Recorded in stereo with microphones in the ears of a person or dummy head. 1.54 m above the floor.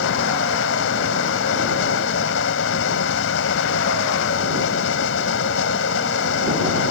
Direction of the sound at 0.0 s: 80° left.